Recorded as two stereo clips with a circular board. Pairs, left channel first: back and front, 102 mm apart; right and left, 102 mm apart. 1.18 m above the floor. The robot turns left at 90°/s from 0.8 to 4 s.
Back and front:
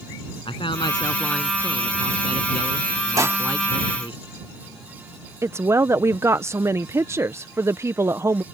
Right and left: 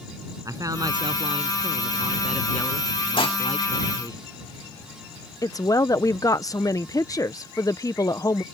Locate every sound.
0.5 s a man speaking: 145° left; by 4.2 s 140° right
3.2 s dishes clattering: 55° right; by 3.4 s 75° right
5.4 s a woman speaking: 50° right